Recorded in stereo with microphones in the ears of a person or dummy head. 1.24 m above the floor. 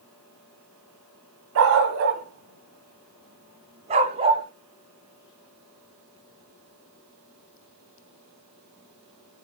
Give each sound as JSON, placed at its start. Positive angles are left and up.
{"t": 1.6, "sound": "a dog barking", "side_deg": -65, "distance_m": 2.0}